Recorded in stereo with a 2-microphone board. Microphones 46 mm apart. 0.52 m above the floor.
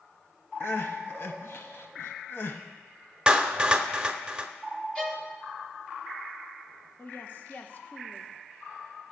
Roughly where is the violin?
Left.